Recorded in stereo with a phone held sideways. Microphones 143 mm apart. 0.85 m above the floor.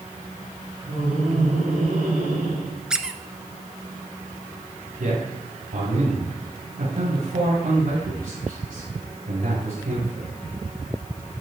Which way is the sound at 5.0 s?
80° right.